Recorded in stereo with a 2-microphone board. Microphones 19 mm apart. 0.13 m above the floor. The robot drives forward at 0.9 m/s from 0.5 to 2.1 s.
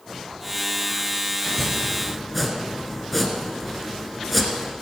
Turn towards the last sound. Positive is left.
turn(degrees=0)  # may be behind; listen again after turning